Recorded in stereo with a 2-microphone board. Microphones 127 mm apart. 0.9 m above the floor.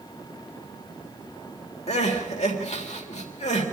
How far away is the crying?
About 3.5 m.